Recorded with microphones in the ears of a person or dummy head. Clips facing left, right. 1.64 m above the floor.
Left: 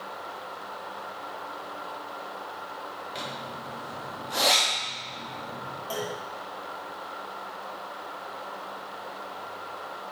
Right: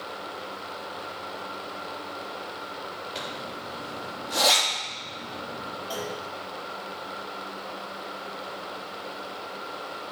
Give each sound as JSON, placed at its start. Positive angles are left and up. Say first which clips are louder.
{"t": 3.1, "sound": "a zipper", "louder": "even", "side_deg": -5, "distance_m": 3.5}
{"t": 5.9, "sound": "a clunk", "louder": "left 1 dB", "side_deg": 30, "distance_m": 3.0}